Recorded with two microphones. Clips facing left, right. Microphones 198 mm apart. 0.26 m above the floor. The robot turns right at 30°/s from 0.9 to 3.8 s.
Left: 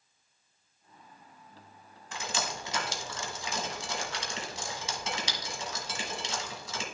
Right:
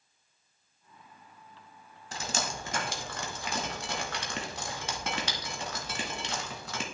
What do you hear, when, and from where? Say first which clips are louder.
2.1 s dripping: right 1 dB; 35° right (ahead or behind), 1.2 m; by 6.8 s 55° right (ahead or behind), 1.2 m